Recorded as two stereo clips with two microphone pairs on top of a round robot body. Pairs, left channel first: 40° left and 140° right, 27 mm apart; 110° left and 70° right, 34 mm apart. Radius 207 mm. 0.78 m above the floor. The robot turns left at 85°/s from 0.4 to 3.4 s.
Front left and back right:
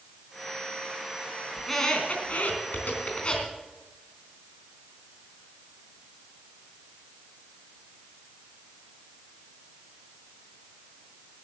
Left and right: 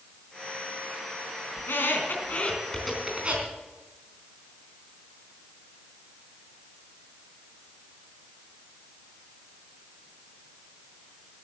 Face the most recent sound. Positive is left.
turn(degrees=-25)